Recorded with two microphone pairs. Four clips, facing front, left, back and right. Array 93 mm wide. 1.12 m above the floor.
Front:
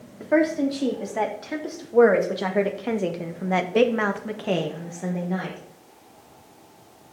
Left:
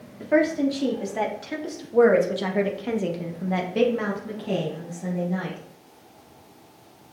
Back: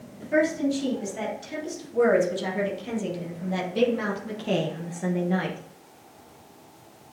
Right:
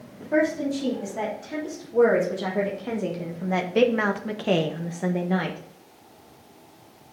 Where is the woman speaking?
30° left, 3 m; by 5.6 s 95° right, 1.3 m.